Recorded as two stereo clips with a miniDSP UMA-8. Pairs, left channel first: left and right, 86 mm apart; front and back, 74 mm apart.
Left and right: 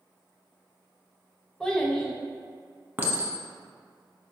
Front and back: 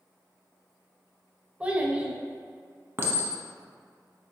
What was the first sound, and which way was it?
A child speaking, 150° left.